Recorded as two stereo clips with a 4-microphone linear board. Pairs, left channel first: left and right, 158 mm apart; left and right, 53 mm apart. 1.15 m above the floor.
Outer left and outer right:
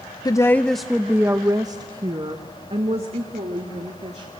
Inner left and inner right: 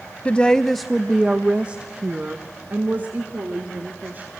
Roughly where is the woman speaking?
Left.